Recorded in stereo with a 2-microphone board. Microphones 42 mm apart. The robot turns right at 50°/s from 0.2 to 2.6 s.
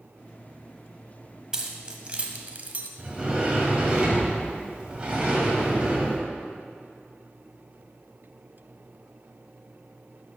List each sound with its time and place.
1.5 s keys jangling: 15° right (ahead or behind), 0.9 m; by 2.9 s 35° right (ahead or behind), 0.9 m
3.0 s a sliding door: 25° right (ahead or behind), 1.5 m